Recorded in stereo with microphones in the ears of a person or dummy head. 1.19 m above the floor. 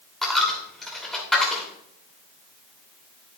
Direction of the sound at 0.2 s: 5° left (ahead or behind).